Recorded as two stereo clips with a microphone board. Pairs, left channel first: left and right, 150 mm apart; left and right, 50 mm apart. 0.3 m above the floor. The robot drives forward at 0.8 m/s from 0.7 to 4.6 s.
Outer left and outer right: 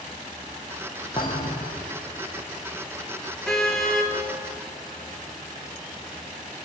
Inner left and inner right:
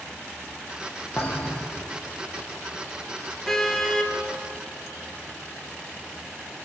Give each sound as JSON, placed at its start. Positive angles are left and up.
{"t": 1.2, "sound": "a thud", "side_deg": 30, "distance_m": 6.0}
{"t": 3.5, "sound": "a car horn", "side_deg": 5, "distance_m": 3.0}